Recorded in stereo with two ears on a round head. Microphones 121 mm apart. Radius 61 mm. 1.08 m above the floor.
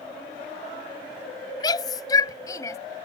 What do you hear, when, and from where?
1.6 s a shout: 30° left (ahead or behind); by 2.8 s 25° left (ahead or behind)